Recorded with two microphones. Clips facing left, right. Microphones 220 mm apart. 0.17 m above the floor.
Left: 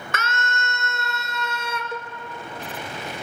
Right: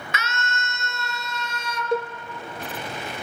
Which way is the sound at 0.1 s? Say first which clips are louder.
Left 3 dB; 50° left (ahead or behind).